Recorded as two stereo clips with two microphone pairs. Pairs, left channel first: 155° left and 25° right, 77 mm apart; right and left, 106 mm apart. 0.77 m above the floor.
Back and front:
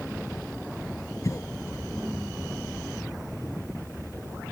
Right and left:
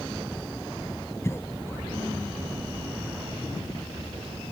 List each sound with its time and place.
1.2 s a cough: 155° right